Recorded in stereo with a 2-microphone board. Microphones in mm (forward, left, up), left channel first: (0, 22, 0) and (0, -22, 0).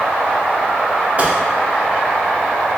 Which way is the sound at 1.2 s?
35° right (ahead or behind).